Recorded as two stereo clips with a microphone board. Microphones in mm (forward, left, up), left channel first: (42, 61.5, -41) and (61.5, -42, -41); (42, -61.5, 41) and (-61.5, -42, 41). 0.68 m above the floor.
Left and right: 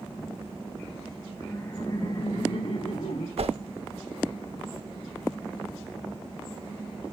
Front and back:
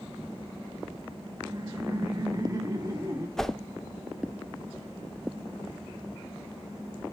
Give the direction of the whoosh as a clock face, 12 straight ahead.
3 o'clock.